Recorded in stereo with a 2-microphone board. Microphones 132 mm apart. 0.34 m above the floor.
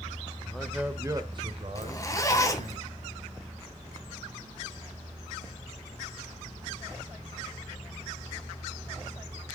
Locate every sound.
0.4 s a man speaking: 10° left (ahead or behind), 0.9 m; by 2.8 s 65° right (ahead or behind), 1.9 m
1.8 s a zipper: 25° left (ahead or behind), 1.6 m